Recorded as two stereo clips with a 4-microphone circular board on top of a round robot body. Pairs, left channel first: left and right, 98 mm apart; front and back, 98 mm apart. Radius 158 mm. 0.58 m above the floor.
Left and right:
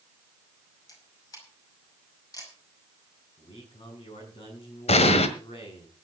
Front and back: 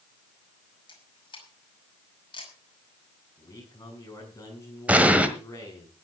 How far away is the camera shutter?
About 5.5 m.